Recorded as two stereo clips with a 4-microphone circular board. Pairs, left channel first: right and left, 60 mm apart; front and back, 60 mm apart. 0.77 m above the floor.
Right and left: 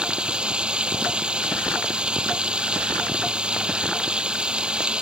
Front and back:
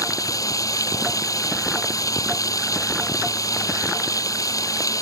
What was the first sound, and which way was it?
Running water, 15° left.